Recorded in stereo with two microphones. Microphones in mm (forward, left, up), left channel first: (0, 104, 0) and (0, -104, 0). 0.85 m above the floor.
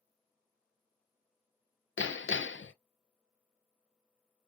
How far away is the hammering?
About 0.5 m.